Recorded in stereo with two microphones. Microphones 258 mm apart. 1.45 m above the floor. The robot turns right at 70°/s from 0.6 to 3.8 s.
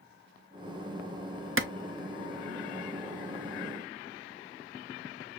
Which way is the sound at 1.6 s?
50° right (ahead or behind).